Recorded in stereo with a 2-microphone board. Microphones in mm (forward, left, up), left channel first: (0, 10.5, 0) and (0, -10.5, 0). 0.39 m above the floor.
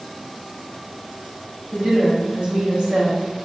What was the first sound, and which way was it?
A woman speaking, 45° right (ahead or behind).